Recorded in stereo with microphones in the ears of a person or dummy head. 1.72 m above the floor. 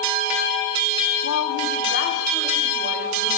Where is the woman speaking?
70° left (ahead or behind), 0.7 m; by 3.3 s 45° left (ahead or behind), 3 m.